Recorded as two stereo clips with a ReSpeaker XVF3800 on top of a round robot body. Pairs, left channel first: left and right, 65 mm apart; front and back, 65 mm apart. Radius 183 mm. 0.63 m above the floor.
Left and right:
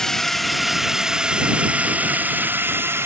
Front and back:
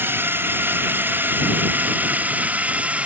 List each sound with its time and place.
0.0 s a drone: 165° left; by 3.1 s 120° right